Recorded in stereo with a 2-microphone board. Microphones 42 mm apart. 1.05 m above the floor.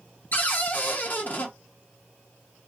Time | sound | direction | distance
0.3 | a cupboard door | 50° left (ahead or behind) | 0.7 m